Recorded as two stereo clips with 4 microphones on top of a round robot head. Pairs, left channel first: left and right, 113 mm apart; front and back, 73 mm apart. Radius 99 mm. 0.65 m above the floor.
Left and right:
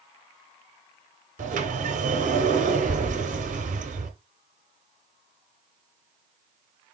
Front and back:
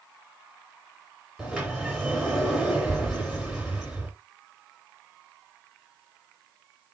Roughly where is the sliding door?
Right.